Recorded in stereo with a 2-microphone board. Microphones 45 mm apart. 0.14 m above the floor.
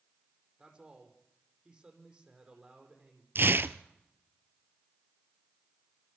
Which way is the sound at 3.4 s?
55° right (ahead or behind).